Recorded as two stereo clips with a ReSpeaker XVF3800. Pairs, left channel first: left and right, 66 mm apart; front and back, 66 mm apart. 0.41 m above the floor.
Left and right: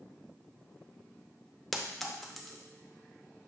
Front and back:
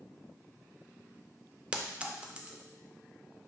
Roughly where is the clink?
Behind.